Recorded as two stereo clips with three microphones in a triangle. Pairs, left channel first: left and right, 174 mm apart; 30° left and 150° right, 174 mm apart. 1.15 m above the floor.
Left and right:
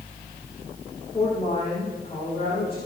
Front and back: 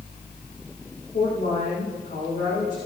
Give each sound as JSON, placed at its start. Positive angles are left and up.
{"t": 1.1, "sound": "a woman speaking", "azimuth_deg": 30, "distance_m": 6.0}